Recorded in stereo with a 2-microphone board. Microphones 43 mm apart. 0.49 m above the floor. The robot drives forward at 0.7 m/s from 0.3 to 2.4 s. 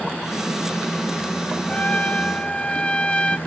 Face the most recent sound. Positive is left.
turn(degrees=25)  # may be behind; listen again after turning